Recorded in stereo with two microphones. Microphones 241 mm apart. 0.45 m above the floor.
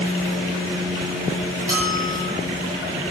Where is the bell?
15° right (ahead or behind), 7.5 m.